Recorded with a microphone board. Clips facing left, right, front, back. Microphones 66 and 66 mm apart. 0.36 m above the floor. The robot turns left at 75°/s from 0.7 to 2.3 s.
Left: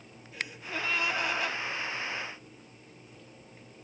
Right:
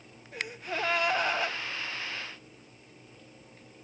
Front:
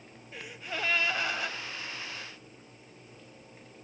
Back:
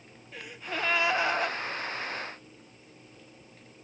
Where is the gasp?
85° right, 2 m; by 1.6 s 155° right, 2 m.